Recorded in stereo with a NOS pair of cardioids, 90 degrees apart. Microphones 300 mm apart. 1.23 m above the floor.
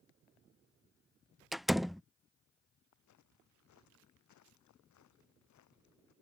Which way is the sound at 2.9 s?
70° left.